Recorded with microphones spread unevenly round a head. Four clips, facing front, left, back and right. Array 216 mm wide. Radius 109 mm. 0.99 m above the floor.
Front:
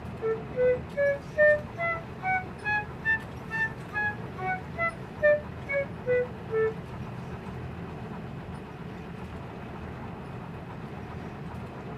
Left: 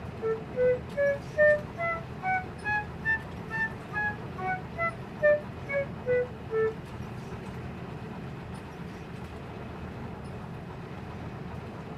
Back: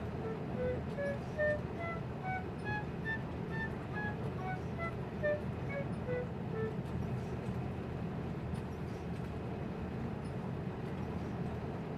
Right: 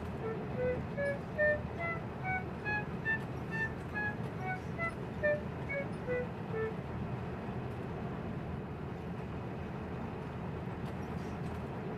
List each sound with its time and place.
0.2 s a flute: 40° left